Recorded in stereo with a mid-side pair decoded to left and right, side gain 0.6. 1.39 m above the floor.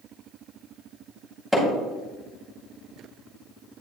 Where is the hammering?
5° right, 3.5 m.